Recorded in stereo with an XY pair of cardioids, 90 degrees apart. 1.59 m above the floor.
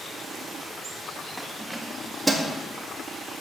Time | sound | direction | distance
1.4 | keys jangling | 5° right | 1.7 m